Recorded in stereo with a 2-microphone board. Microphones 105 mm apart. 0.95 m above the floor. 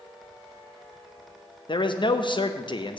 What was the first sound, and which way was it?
A man speaking, 50° left (ahead or behind).